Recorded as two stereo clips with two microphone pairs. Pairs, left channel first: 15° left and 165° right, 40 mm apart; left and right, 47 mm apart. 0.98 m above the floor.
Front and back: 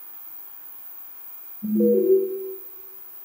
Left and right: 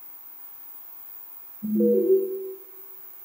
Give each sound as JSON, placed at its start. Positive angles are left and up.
{"t": 1.6, "sound": "an alarm", "azimuth_deg": -140, "distance_m": 3.5}